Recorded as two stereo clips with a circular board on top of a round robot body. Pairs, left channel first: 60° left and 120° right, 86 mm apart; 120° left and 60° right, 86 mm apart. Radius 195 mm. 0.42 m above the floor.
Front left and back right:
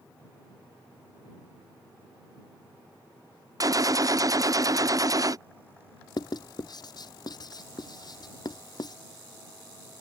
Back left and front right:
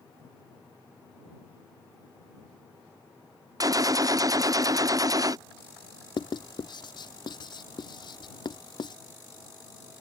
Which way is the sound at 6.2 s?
95° left.